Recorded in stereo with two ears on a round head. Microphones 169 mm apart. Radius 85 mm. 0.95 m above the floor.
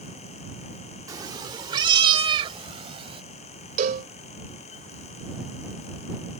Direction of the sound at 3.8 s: 45° right (ahead or behind).